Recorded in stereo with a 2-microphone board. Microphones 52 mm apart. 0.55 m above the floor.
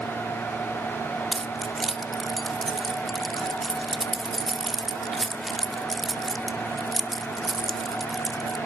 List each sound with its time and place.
1.3 s keys jangling: 5° left (ahead or behind), 0.7 m